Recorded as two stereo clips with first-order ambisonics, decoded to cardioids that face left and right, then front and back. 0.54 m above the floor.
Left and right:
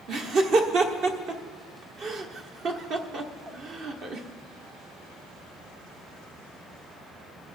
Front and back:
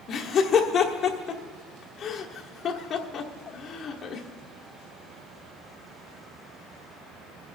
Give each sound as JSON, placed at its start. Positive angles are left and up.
{"t": 0.1, "sound": "laughter", "azimuth_deg": -55, "distance_m": 1.2}